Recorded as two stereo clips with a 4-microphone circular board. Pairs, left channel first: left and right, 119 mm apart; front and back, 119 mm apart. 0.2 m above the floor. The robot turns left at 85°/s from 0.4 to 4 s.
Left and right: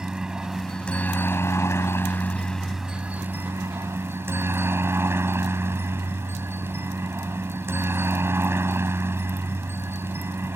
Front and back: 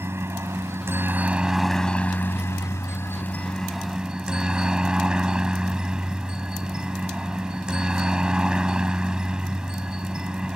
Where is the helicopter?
165° right; by 10.6 s 110° right.